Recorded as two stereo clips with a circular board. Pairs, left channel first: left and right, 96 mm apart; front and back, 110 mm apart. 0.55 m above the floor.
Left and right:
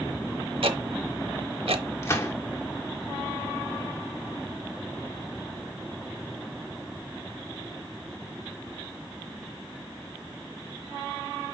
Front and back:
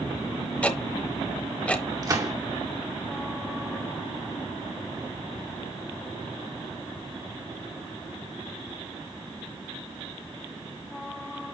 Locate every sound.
0.6 s ticking: 80° right, 0.9 m
2.0 s a gunshot: 135° left, 1.7 m